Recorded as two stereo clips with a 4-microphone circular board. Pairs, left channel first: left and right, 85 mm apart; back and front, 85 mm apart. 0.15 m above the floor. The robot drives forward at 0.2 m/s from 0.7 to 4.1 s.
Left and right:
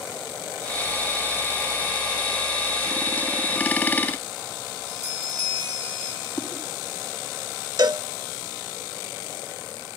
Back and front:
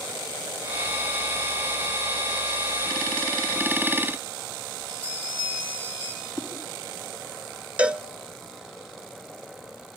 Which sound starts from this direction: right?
A cowbell, at 7.8 s.